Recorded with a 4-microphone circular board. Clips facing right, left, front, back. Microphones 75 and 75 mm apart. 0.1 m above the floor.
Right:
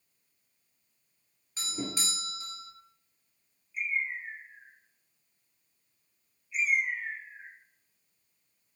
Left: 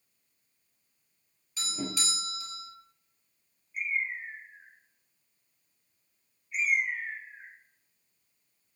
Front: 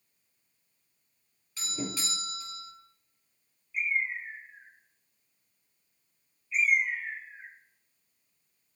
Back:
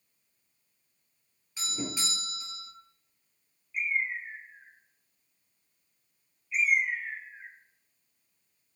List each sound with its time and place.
1.6 s a doorbell: 120° right, 1.9 m
3.7 s a bird: 100° left, 1.0 m